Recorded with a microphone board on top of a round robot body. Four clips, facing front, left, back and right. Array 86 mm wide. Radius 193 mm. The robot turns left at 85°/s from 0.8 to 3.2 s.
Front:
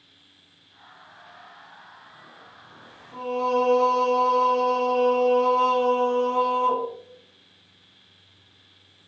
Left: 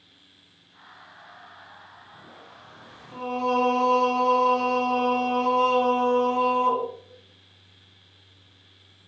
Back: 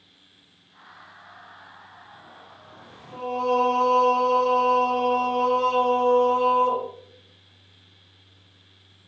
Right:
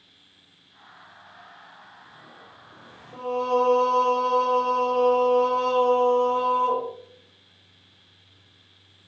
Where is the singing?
85° left, 1.4 m; by 6.9 s 75° left, 1.4 m.